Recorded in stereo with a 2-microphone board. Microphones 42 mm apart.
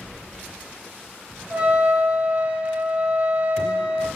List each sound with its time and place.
1.5 s a trumpet: 30° right (ahead or behind), 1.6 m